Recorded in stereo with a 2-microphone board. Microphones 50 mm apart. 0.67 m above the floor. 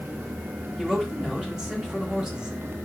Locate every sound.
0.8 s a man speaking: 15° right (ahead or behind), 1.3 m